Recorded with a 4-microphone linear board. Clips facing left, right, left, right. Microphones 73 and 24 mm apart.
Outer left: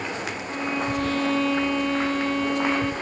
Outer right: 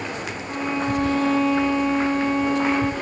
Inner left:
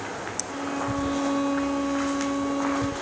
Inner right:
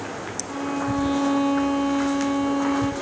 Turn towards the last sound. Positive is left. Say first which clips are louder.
# outer right 3 dB, inner right 4 dB
turn(degrees=-15)  # may be behind; listen again after turning